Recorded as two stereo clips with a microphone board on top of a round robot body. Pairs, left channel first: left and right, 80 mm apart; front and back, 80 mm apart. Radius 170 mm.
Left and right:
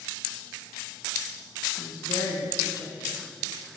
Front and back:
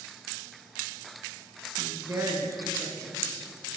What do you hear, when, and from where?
1.8 s a woman speaking: 135° left, 4 m